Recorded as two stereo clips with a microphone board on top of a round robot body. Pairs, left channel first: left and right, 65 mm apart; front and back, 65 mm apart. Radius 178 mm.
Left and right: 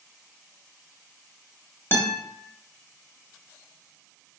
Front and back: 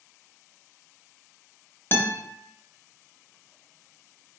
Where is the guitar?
40° left, 0.9 m.